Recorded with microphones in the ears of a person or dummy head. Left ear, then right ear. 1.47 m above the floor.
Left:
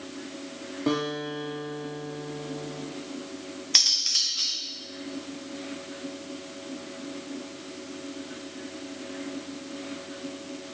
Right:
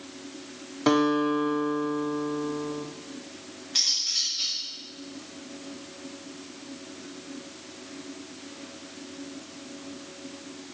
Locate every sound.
0.9 s a guitar: 55° right (ahead or behind), 1.0 m
3.8 s cutlery clinking: 40° left (ahead or behind), 1.0 m